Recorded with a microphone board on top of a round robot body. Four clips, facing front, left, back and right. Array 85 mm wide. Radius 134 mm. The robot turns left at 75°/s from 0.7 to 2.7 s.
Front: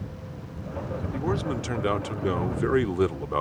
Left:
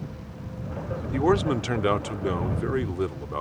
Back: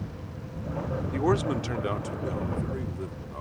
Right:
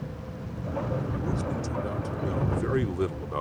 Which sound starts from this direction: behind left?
A man speaking, at 1.1 s.